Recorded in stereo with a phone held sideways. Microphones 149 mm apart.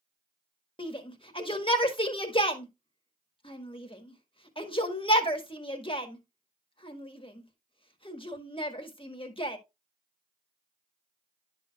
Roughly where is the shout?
Left.